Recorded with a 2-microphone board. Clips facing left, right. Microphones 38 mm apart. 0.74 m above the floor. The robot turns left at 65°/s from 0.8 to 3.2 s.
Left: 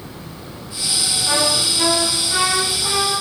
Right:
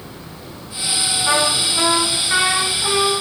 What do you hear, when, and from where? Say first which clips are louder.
1.2 s a trumpet: right 2 dB; 55° right, 5.5 m; by 3.2 s 175° left, 5.5 m